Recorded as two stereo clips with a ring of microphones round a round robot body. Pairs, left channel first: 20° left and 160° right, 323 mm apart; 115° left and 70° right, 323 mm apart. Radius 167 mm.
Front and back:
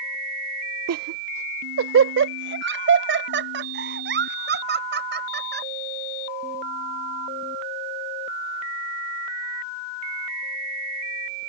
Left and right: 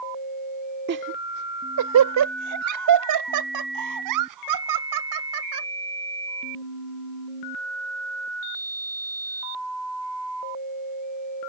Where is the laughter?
120° right; by 5.7 s 95° right.